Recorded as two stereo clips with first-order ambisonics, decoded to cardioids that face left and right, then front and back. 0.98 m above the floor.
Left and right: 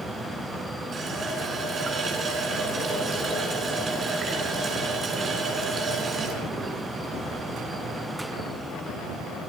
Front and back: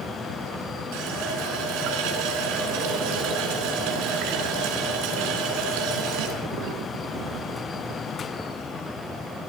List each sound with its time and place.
0.9 s a running tap: 160° right, 6.5 m